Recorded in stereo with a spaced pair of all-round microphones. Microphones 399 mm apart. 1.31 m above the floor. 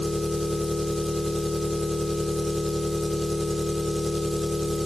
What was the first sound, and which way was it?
An engine running, centre (ahead or behind).